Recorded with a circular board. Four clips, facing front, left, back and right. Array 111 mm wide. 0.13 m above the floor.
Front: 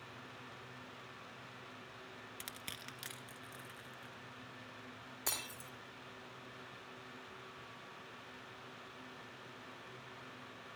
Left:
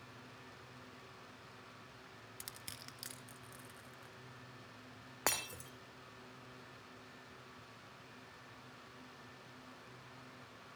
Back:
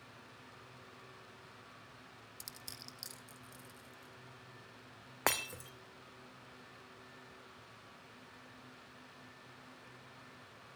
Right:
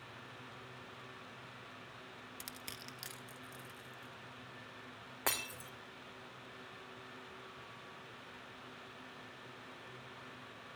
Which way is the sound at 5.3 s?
170° left.